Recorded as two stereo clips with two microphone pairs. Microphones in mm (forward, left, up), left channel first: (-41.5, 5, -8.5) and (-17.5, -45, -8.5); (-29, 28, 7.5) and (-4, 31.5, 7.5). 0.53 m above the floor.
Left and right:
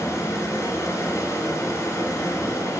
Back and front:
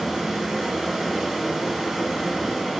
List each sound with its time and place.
0.0 s running water: 85° left, 2.5 m